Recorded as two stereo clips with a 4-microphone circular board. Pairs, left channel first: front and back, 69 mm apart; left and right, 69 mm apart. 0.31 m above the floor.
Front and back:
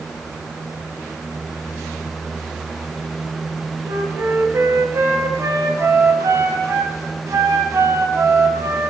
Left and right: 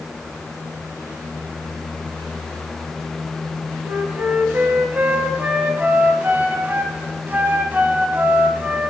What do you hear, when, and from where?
3.9 s a flute: 145° right, 0.6 m